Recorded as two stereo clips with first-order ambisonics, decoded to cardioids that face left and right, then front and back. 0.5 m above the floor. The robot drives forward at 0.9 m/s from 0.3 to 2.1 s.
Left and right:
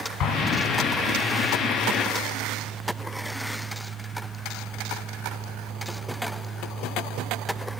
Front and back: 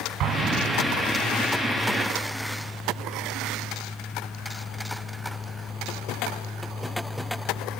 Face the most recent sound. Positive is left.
turn(degrees=150)